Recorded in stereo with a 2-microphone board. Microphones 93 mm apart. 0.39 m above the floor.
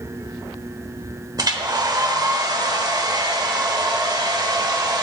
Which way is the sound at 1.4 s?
45° right (ahead or behind).